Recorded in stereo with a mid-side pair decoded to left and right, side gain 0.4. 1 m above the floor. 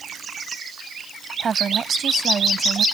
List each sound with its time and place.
1.4 s a woman speaking: 45° right